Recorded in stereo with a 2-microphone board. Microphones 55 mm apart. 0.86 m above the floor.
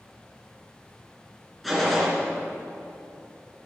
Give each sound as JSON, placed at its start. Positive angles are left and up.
{"t": 1.6, "sound": "a gunshot", "side_deg": -5, "distance_m": 2.5}